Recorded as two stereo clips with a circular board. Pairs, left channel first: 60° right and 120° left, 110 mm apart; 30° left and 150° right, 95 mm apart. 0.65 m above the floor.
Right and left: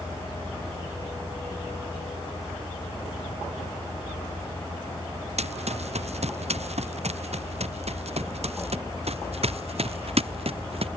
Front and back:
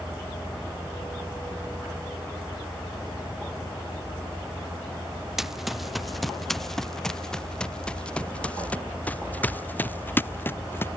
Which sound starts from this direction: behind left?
Running footsteps, at 5.4 s.